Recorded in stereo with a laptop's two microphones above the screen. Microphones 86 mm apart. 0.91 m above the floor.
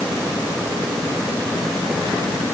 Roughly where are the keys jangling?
I don't hear keys jangling.